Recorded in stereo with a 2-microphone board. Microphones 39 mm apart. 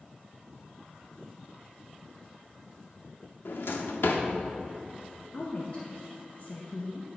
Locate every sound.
3.5 s a drawer: 70° left (ahead or behind), 0.7 m
5.3 s a woman speaking: 35° left (ahead or behind), 0.8 m